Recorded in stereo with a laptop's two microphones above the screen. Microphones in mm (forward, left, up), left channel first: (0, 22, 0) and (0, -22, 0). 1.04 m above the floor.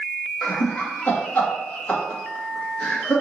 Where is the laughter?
40° left (ahead or behind), 1.3 m.